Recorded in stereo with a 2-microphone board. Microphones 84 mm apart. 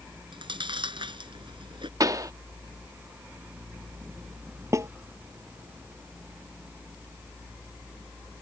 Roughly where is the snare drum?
Right.